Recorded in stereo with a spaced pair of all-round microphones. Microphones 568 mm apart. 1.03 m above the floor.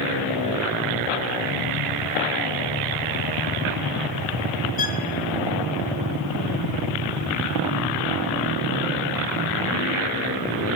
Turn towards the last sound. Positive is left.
turn(degrees=75)  # may be behind; listen again after turning